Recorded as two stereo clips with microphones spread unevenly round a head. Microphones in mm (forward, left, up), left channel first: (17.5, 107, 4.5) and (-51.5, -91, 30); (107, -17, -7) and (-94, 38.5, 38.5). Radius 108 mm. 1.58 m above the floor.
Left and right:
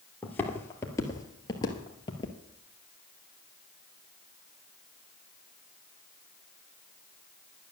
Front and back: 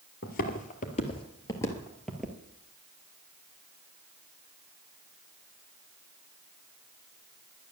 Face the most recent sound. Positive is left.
turn(degrees=125)